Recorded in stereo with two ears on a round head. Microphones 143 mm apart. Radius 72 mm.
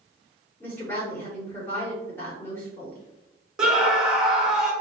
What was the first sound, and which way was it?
A woman speaking, 15° left (ahead or behind).